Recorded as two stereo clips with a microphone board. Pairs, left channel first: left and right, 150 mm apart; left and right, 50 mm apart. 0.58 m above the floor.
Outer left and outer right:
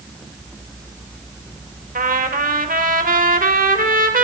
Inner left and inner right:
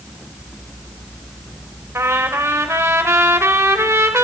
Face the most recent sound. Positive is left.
turn(degrees=-70)  # may be behind; listen again after turning